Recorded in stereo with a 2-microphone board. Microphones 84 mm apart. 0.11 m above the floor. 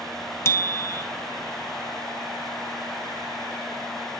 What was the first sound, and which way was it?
A bicycle bell, 35° left (ahead or behind).